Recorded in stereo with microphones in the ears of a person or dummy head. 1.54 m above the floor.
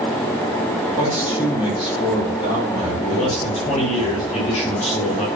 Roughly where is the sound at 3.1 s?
Left.